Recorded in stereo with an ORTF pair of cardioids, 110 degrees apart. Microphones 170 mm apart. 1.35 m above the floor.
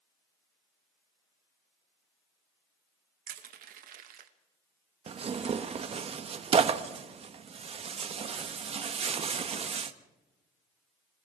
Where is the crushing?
55° right, 2 m.